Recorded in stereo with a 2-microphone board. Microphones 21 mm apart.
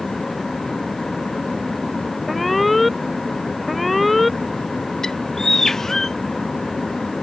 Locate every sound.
2.3 s an alarm: 5° left (ahead or behind)
5.0 s a bird: 25° left (ahead or behind)